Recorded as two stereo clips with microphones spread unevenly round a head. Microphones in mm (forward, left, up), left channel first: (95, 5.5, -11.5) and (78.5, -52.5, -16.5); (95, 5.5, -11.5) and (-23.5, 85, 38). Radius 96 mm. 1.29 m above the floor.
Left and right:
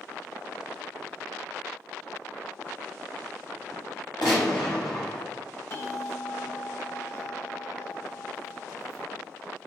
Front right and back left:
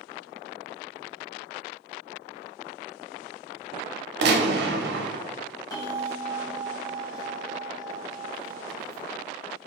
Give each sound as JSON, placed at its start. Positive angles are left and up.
{"t": 4.2, "sound": "a gunshot", "azimuth_deg": 135, "distance_m": 0.6}
{"t": 5.7, "sound": "a bell", "azimuth_deg": 40, "distance_m": 1.1}